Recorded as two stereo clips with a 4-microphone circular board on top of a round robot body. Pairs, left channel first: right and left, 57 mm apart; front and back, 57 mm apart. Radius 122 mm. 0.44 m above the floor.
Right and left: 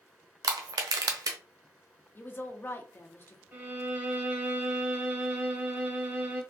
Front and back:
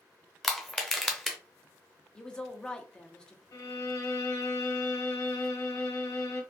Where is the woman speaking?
70° right, 0.8 m.